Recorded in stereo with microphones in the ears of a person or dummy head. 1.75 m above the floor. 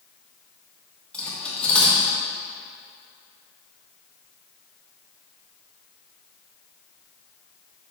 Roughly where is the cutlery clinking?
Centre.